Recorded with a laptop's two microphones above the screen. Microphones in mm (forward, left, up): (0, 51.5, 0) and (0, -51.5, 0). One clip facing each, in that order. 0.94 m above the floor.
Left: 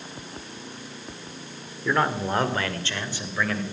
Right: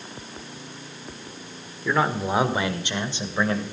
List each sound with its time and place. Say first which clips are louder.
1.9 s a man speaking: right 1 dB; centre (ahead or behind), 2 m; by 3.6 s 25° right (ahead or behind), 3.5 m